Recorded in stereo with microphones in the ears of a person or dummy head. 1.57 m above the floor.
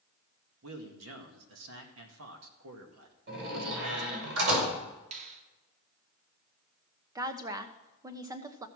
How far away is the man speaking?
About 1.7 m.